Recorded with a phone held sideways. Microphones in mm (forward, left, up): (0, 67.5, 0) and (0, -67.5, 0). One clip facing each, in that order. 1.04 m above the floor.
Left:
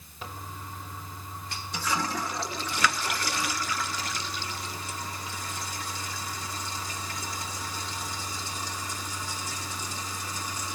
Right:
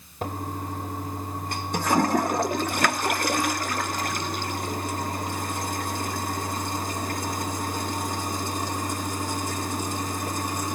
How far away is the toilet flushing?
About 0.8 m.